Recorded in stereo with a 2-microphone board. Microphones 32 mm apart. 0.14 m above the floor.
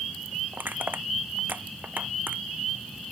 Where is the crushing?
70° right (ahead or behind).